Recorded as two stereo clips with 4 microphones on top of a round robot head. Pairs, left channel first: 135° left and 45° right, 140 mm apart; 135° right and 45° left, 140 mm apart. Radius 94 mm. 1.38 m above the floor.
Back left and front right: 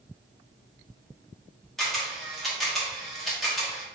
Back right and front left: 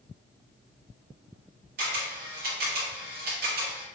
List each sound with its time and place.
1.8 s a camera shutter: 50° left, 0.9 m